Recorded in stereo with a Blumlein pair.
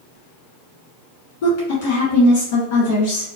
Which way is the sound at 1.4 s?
55° left.